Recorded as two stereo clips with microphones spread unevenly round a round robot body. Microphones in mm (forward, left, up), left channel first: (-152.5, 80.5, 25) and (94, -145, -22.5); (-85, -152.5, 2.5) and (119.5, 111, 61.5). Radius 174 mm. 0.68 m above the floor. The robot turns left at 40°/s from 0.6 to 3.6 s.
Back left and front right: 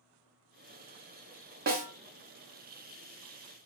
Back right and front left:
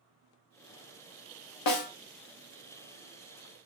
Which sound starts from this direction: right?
A snare drum, at 1.7 s.